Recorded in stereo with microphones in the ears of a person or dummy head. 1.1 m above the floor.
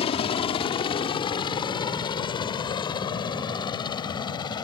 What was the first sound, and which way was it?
A helicopter, 30° left (ahead or behind).